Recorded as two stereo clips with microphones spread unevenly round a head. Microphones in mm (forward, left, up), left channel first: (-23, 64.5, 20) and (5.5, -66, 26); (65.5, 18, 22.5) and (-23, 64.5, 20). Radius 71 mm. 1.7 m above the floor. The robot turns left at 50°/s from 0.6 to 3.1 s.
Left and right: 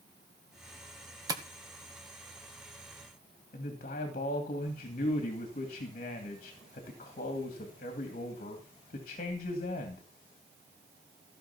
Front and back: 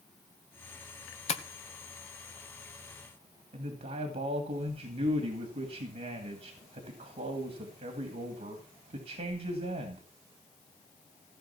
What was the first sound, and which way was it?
Tapping, 10° right.